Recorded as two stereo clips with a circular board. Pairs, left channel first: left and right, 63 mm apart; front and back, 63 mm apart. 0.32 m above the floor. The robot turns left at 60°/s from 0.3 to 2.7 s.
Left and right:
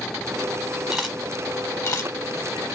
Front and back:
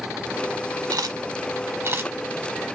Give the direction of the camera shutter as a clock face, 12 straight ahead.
6 o'clock.